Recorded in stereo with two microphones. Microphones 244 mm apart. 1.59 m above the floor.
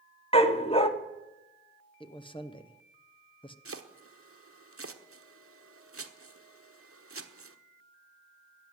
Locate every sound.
0.3 s a dog barking: 25° left (ahead or behind), 1.1 m
2.0 s a man speaking: 20° left (ahead or behind), 1.0 m
3.6 s chopping: 65° right (ahead or behind), 1.1 m